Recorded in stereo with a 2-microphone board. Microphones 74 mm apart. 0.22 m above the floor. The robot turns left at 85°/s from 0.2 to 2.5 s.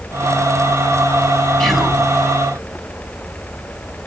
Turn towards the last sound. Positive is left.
turn(degrees=-65)